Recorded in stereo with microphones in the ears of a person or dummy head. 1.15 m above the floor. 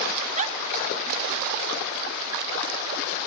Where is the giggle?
30° right (ahead or behind), 1.1 m.